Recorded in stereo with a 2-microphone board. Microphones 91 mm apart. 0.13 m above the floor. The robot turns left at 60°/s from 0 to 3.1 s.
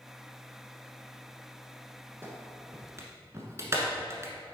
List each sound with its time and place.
2.2 s a clap: 25° right (ahead or behind), 1.1 m; by 4.3 s 30° right (ahead or behind), 1.1 m